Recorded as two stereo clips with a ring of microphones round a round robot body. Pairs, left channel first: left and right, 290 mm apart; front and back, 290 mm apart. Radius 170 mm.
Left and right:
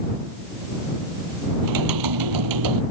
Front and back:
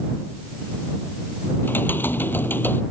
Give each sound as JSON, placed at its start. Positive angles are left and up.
{"t": 1.6, "sound": "typing on a keyboard", "azimuth_deg": -85}